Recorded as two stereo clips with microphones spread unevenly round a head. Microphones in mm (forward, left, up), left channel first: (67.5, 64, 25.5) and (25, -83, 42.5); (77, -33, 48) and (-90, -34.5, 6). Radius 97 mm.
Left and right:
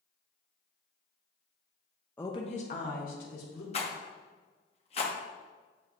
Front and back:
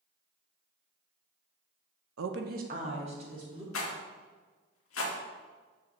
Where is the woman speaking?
160° left, 0.5 m; by 3.6 s 115° left, 2 m.